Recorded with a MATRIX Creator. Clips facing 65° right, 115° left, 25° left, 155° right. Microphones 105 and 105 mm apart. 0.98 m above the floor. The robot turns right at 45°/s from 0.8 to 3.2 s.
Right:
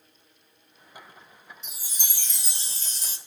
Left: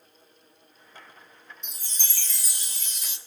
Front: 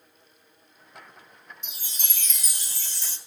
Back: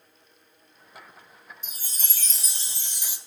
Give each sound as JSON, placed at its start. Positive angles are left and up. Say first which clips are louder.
{"t": 1.6, "sound": "a chime", "louder": "even, even", "azimuth_deg": -155, "distance_m": 0.8}